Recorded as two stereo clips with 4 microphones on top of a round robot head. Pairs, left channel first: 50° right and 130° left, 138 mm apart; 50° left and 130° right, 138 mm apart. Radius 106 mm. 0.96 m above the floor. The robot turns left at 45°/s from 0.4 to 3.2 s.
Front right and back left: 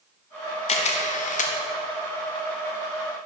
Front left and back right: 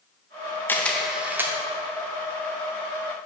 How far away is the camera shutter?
About 0.9 m.